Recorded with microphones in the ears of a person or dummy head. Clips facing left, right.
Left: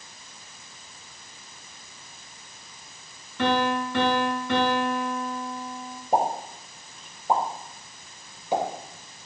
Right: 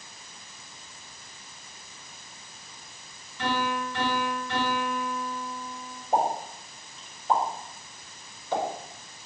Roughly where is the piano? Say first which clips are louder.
Left 5 dB; left.